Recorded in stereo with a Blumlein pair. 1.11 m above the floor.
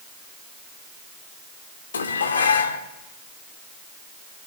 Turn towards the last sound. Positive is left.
turn(degrees=70)